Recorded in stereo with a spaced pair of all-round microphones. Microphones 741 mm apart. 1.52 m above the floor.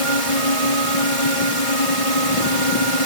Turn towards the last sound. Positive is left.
turn(degrees=45)  # may be behind; listen again after turning